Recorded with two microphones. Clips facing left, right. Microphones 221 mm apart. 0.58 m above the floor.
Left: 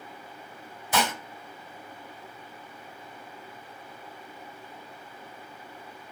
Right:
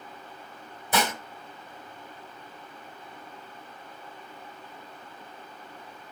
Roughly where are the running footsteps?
I don't hear running footsteps.